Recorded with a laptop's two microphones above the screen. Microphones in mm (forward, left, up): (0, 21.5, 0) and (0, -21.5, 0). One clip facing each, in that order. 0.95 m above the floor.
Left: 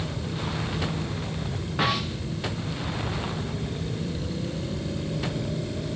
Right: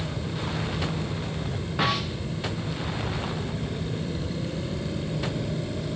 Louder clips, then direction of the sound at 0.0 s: Even; 15° right (ahead or behind).